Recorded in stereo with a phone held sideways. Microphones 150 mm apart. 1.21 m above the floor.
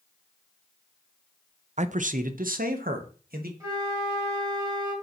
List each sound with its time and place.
1.8 s a man speaking: 50° right (ahead or behind), 0.5 m; by 3.5 s 80° right, 1.7 m
3.6 s a flute: 20° right (ahead or behind), 3.5 m